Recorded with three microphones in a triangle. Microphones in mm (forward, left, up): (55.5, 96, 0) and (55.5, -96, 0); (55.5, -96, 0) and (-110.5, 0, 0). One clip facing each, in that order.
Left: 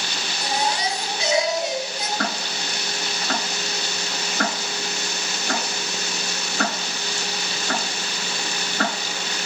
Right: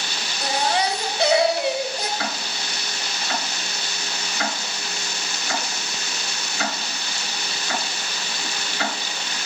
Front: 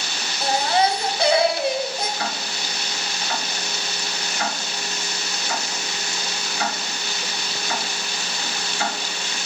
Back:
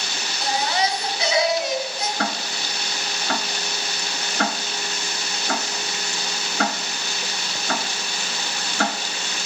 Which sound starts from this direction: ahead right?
A baby crying, at 0.4 s.